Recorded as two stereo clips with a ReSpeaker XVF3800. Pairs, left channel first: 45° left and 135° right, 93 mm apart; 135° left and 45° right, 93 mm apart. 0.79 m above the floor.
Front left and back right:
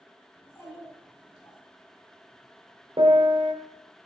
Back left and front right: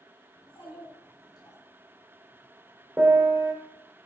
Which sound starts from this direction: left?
A child speaking, at 0.4 s.